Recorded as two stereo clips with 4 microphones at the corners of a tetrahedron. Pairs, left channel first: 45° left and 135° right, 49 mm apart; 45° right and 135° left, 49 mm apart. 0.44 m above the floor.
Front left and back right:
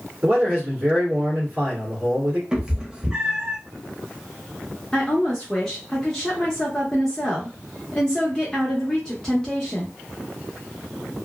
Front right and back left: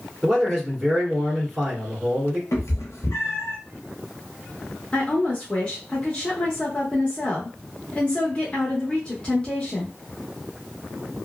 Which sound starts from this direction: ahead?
A woman speaking, at 4.9 s.